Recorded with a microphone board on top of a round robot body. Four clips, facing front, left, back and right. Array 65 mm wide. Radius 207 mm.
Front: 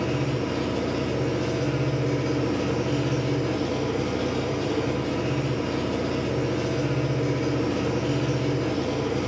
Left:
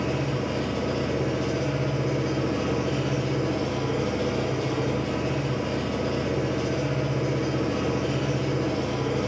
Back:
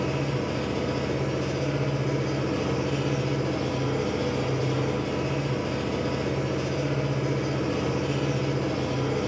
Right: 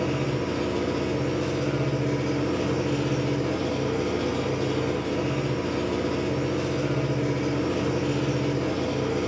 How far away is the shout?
I don't hear a shout.